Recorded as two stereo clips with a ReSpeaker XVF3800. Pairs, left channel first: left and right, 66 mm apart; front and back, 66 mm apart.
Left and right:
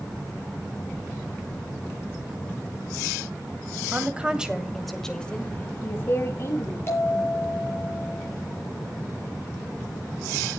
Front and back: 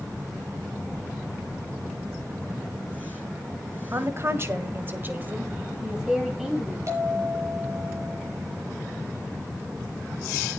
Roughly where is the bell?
Behind left.